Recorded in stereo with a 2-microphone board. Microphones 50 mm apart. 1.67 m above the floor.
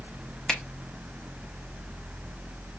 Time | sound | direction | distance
0.5 | a finger snap | 10° left (ahead or behind) | 1.0 m